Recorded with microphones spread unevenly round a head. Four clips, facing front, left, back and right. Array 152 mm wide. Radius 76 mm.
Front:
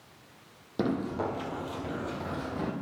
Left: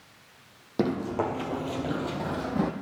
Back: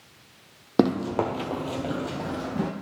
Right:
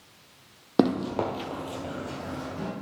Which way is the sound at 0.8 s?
135° right.